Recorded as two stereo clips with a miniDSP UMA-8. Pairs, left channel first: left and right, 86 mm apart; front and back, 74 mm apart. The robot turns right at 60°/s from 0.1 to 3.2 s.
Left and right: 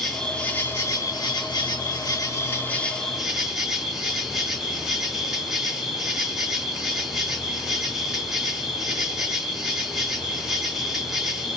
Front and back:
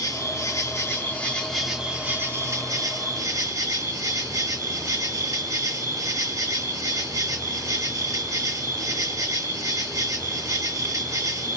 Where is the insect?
Straight ahead, 1.8 m; by 11.6 s 175° right, 1.8 m.